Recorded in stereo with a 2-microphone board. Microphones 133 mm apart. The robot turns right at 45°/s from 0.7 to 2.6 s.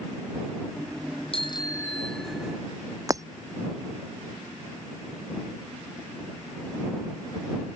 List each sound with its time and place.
1.3 s a bicycle bell: 135° left; by 2.6 s 165° right
3.1 s breaking glass: 25° right (ahead or behind)